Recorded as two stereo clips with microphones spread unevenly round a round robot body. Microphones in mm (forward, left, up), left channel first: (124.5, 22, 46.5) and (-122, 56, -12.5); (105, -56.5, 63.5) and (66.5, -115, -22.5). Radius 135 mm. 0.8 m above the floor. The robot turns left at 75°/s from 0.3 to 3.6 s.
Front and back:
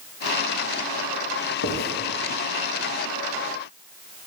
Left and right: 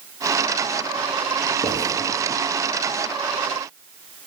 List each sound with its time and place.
1.6 s writing: 5° right, 1.4 m; by 1.9 s 25° right, 1.4 m